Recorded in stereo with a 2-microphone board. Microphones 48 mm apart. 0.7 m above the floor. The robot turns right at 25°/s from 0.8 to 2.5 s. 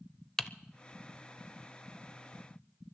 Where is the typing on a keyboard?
10° left (ahead or behind), 0.6 m.